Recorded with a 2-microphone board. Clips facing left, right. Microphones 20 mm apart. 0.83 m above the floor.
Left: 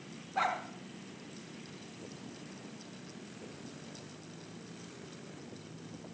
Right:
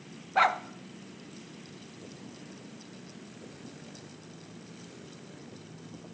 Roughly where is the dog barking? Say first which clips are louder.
Right 8 dB; right.